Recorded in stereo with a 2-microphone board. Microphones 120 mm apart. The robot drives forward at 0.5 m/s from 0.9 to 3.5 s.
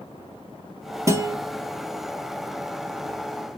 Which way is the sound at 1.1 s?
25° right (ahead or behind).